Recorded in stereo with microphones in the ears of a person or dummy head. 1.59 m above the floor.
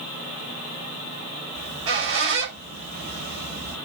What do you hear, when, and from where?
1.6 s a squeak: 70° right (ahead or behind), 4.5 m